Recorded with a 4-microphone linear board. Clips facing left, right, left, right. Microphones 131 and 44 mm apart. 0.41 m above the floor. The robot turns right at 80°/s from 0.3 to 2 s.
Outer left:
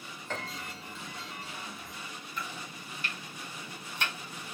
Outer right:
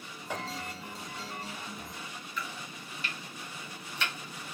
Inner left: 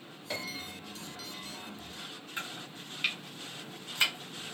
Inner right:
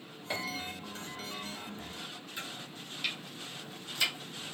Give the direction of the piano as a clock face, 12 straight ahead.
12 o'clock.